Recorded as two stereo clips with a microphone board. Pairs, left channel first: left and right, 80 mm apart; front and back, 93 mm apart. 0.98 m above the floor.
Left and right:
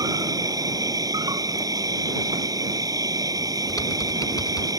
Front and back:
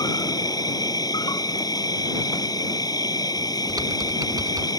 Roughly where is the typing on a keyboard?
Behind left.